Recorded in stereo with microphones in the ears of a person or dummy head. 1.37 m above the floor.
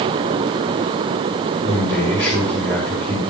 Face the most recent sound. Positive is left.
turn(degrees=15)  # may be behind; listen again after turning